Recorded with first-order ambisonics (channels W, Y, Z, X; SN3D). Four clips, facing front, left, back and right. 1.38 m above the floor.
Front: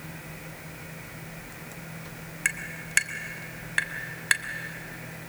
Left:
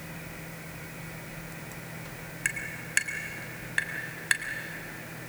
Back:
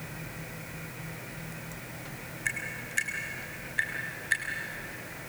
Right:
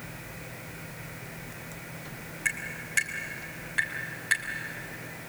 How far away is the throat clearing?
I don't hear throat clearing.